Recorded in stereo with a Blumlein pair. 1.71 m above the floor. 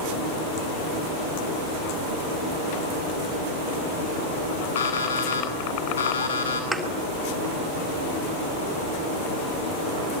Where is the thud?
10° right, 4.5 m.